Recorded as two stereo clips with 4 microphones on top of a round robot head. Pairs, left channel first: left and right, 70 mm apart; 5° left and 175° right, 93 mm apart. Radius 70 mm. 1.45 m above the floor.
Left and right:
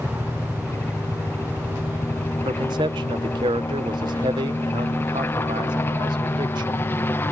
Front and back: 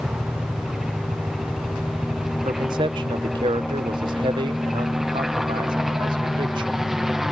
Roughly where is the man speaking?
Behind right.